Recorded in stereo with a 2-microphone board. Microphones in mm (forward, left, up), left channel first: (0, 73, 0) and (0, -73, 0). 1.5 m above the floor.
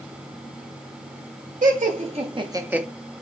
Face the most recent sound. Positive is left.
turn(degrees=-5)  # may be behind; listen again after turning